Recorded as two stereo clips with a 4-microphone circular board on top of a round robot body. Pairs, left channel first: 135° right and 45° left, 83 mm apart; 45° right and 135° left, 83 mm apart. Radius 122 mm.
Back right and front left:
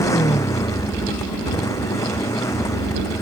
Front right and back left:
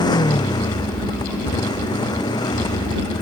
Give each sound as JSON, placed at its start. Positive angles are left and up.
{"t": 0.0, "sound": "a motorcycle", "azimuth_deg": -80}